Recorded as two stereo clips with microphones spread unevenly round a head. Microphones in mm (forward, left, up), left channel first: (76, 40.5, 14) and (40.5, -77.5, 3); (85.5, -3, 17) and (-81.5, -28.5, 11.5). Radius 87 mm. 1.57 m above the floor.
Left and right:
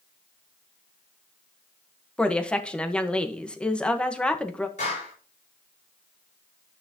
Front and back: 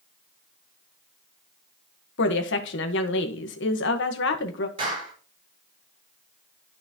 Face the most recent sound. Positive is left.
turn(degrees=125)